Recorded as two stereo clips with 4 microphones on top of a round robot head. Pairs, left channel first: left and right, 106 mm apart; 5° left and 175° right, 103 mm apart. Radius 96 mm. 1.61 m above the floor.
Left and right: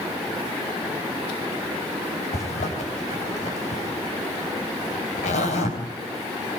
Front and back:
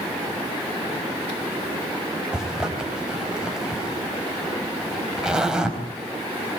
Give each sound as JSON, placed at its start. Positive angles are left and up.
{"t": 2.3, "sound": "a zipper", "azimuth_deg": 105, "distance_m": 4.5}